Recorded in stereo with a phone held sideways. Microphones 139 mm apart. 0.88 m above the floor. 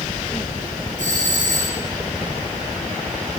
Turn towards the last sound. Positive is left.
turn(degrees=-60)  # may be behind; listen again after turning